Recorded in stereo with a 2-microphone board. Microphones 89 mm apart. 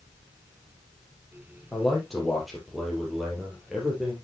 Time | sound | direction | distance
1.7 | a man speaking | 5° left (ahead or behind) | 5 m